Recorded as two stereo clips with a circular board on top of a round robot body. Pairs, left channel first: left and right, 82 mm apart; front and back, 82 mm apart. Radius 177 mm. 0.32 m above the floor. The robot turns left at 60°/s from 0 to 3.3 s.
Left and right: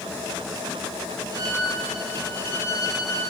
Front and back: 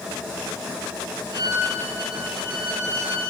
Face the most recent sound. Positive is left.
turn(degrees=105)